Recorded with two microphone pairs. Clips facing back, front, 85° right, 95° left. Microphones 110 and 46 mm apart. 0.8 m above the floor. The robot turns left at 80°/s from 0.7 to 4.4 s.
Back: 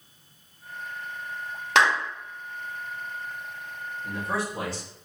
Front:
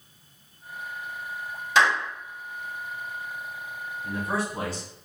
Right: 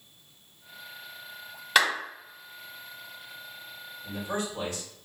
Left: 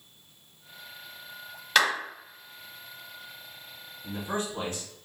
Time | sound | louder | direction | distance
1.8 | a clap | even, even | 165° right | 1.9 m
4.0 | a man speaking | front 1 dB, even | 70° left | 1.8 m